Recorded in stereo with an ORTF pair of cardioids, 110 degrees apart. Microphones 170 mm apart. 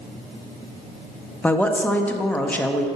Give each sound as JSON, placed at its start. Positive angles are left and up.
{"t": 1.4, "sound": "a woman speaking", "azimuth_deg": 10, "distance_m": 1.1}